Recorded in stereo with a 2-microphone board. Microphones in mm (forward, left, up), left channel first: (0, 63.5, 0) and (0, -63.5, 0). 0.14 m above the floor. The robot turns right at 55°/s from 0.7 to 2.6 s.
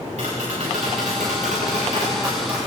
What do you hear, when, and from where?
0.2 s tapping: 115° right, 9 m; by 2.7 s 10° right, 9 m